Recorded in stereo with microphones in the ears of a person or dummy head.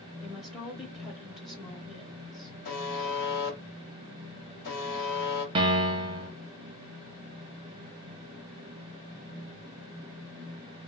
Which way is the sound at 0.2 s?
5° right (ahead or behind).